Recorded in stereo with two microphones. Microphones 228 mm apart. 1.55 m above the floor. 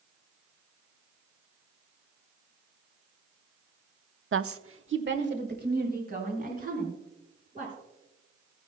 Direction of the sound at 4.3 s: 60° right (ahead or behind).